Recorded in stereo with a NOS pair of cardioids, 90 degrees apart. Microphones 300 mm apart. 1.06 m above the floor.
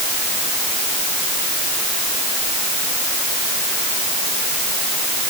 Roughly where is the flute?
I don't hear a flute.